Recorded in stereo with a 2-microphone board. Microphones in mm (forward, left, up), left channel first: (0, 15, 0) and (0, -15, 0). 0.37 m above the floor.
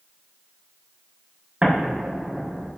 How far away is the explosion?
About 5.5 m.